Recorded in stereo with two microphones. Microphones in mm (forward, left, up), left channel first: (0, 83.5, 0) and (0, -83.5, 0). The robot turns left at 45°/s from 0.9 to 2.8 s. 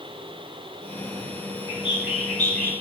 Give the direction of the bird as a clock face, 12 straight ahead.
6 o'clock.